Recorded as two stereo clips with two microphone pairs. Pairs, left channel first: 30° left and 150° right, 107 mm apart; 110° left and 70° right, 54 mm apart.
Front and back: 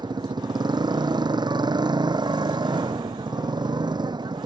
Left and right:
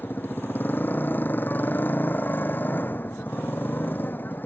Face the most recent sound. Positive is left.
turn(degrees=165)